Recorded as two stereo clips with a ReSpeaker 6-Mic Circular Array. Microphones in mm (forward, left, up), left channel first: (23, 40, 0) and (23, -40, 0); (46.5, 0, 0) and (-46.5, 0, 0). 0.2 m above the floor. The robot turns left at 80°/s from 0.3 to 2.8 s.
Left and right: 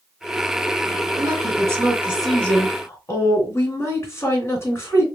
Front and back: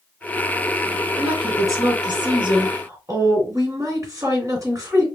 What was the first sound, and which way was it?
A woman speaking, 95° right.